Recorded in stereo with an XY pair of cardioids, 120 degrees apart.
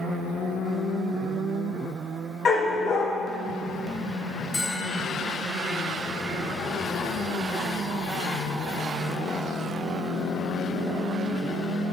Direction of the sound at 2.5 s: 40° left.